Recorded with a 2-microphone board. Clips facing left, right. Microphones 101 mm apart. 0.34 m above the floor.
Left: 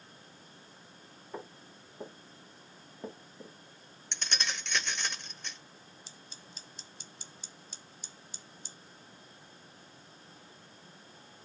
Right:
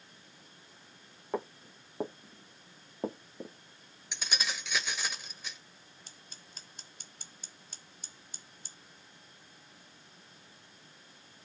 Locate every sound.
1.3 s footsteps: 60° right (ahead or behind), 2.5 m; by 3.6 s 25° right (ahead or behind), 1.2 m
4.1 s keys jangling: 5° right (ahead or behind), 0.9 m
6.1 s scissors: 50° right (ahead or behind), 1.3 m